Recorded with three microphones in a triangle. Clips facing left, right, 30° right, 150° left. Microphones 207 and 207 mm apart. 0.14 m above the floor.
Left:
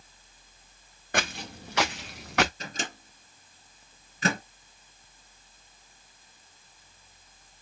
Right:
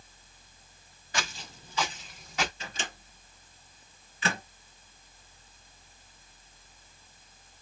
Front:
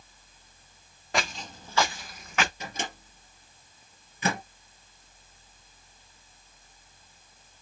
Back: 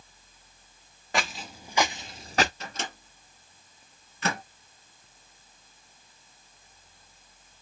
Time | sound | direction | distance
1.1 | footsteps | 60° left | 1.2 m
2.6 | a microwave | 50° left | 2 m